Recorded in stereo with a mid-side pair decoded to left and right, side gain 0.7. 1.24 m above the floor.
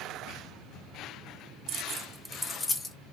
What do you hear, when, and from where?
1.7 s keys jangling: 50° right, 0.5 m; by 3.0 s 25° left, 0.9 m